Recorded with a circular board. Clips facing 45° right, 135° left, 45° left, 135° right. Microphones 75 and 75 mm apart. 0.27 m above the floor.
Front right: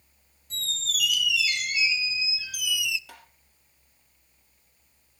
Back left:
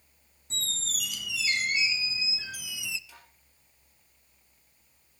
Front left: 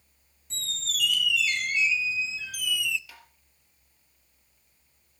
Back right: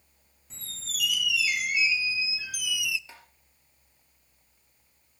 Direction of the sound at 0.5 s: 150° left.